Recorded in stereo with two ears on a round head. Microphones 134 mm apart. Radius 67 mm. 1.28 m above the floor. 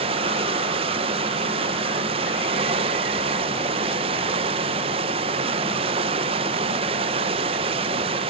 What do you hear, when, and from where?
0.0 s running water: 40° right (ahead or behind), 0.8 m